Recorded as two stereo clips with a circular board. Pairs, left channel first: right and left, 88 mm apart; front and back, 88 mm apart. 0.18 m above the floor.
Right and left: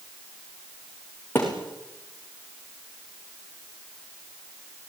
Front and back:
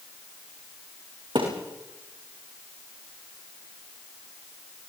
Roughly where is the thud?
Behind right.